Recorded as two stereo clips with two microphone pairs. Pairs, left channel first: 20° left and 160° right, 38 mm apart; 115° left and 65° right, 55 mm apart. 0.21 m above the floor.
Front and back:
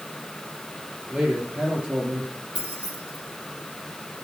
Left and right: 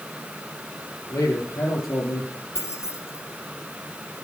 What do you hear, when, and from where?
1.1 s a man speaking: 145° left, 5 m; by 2.3 s 150° left, 5.5 m
2.5 s keys jangling: 150° left, 4 m